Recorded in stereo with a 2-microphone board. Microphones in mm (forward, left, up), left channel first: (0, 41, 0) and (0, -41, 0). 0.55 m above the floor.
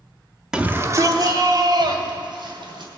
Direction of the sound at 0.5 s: 10° right (ahead or behind).